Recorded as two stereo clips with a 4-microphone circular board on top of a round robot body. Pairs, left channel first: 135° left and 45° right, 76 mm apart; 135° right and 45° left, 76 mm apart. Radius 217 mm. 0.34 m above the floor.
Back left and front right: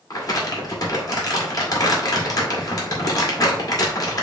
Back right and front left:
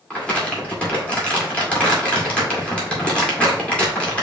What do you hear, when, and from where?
0.1 s crumpling: 155° left, 2 m